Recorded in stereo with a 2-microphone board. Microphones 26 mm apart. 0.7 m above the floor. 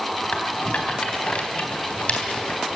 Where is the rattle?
55° left (ahead or behind), 3 m.